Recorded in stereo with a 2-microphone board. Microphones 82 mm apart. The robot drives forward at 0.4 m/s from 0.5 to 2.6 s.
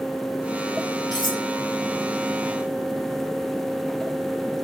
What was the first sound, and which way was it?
Cutlery clinking, 60° left (ahead or behind).